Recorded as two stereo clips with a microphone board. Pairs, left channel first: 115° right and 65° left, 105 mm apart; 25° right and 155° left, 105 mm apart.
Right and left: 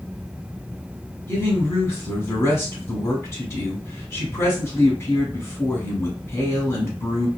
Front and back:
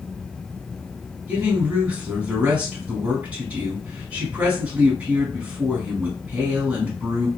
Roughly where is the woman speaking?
Behind right.